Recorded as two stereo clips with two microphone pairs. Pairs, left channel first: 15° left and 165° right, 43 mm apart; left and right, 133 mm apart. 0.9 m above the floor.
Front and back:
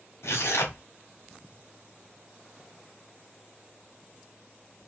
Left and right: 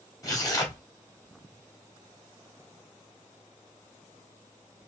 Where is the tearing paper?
25° left, 1.7 m.